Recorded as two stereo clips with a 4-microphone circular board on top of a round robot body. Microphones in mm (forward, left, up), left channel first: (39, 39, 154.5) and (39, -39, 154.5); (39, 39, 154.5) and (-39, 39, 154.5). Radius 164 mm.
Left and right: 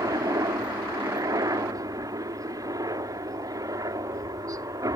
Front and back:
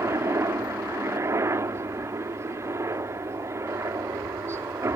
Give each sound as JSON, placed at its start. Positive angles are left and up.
{"t": 0.0, "sound": "a helicopter", "azimuth_deg": -130}